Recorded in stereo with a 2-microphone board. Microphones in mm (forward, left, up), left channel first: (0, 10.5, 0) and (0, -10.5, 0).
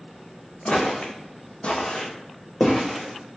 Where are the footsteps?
50° left (ahead or behind), 0.8 m; by 3.4 s 5° left (ahead or behind), 1.3 m.